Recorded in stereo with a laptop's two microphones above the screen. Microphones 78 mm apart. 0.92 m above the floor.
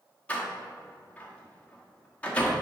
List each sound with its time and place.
0.3 s a door slam: 15° left (ahead or behind), 1.6 m